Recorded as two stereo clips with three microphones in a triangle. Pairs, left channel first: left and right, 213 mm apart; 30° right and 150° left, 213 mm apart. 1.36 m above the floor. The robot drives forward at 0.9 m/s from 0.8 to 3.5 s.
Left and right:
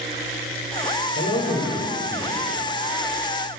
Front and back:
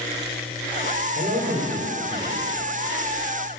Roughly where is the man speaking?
Left.